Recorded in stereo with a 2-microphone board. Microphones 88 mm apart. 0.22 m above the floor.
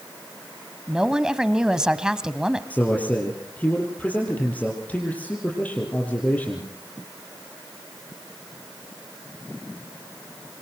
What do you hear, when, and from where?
0.9 s a woman speaking: 10° right (ahead or behind), 1.1 m
2.7 s a man speaking: 15° left (ahead or behind), 5.5 m